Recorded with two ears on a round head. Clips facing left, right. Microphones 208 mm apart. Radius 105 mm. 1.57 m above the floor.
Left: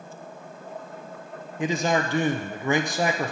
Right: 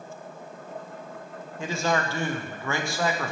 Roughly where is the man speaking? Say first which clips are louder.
Left 3 dB; centre.